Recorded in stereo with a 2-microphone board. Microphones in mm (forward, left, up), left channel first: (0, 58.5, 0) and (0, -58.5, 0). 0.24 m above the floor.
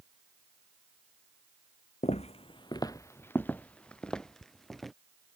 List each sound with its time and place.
2.0 s footsteps: 75° left (ahead or behind); by 4.9 s centre (ahead or behind)